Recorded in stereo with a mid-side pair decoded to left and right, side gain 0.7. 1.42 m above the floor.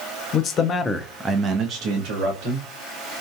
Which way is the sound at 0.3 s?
45° left.